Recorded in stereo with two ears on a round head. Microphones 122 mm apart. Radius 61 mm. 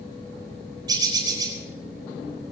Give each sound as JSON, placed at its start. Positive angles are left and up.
{"t": 0.9, "sound": "a bird", "side_deg": -30, "distance_m": 4.0}